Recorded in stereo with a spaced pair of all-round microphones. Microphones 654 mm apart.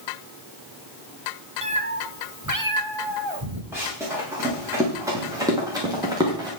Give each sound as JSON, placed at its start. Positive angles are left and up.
{"t": 1.6, "sound": "a cat meowing", "side_deg": -10, "distance_m": 1.3}
{"t": 3.7, "sound": "running footsteps", "side_deg": -5, "distance_m": 9.0}